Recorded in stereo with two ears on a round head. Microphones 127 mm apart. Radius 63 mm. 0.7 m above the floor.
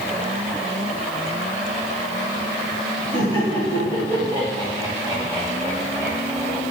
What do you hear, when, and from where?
3.1 s laughter: 40° right (ahead or behind), 4.5 m; by 6.6 s 15° right (ahead or behind), 4.5 m